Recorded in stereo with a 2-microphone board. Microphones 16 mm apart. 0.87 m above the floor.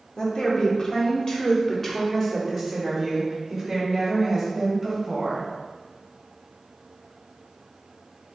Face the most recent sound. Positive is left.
turn(degrees=-30)  # may be behind; listen again after turning